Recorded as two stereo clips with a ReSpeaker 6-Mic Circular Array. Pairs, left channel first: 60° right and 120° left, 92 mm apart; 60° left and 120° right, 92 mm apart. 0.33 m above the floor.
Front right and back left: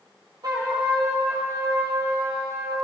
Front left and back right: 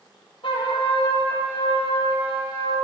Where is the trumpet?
80° left, 3 m.